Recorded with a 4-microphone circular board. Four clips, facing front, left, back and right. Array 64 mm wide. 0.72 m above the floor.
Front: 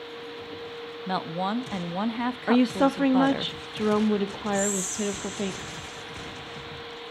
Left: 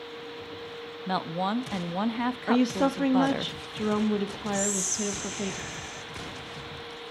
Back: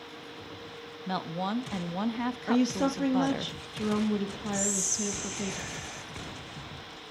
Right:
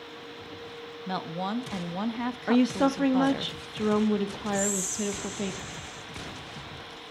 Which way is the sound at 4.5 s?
130° left.